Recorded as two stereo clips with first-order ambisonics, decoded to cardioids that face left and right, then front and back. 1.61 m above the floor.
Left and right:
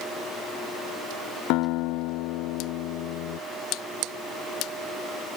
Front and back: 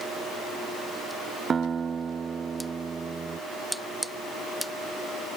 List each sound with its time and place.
1.5 s a guitar: 110° left